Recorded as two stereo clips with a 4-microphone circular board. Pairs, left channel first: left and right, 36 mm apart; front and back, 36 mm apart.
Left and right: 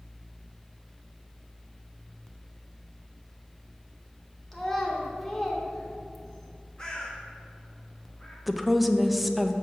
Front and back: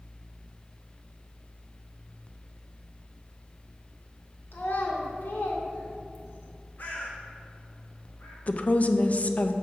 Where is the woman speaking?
Straight ahead, 0.6 m.